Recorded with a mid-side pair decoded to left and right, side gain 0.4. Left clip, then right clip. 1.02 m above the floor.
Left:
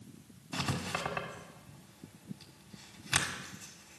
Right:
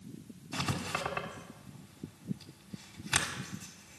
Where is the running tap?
I don't hear a running tap.